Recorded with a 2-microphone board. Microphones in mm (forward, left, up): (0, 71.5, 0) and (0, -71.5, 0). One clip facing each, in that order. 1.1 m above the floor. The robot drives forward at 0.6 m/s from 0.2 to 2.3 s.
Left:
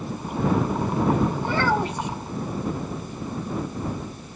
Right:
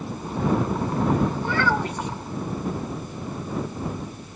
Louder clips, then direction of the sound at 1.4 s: Left 1 dB; 25° left (ahead or behind).